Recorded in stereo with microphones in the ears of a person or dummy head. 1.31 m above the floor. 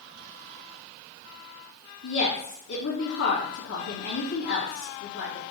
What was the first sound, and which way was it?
A woman speaking, 75° left (ahead or behind).